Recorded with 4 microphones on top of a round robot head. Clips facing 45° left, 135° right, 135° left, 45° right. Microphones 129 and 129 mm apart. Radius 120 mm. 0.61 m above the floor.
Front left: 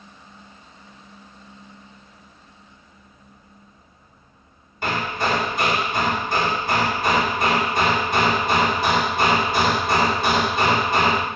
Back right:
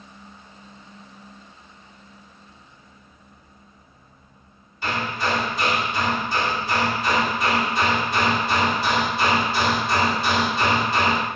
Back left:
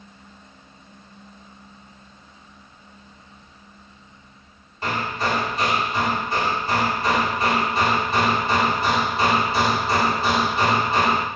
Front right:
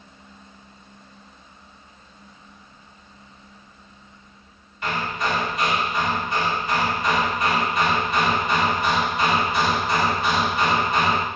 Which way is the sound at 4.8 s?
80° left.